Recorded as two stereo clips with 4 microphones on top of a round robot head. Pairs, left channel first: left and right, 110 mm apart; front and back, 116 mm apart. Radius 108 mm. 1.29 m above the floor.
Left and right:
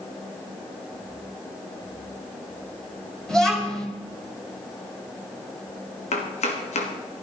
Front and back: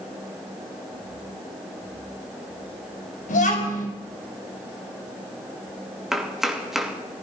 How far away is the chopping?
About 3 m.